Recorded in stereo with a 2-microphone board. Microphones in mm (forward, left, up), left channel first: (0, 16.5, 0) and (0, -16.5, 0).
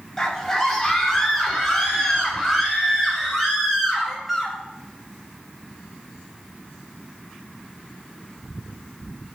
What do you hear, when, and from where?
0.2 s a scream: 15° left (ahead or behind), 3.5 m; by 4.6 s centre (ahead or behind), 7.5 m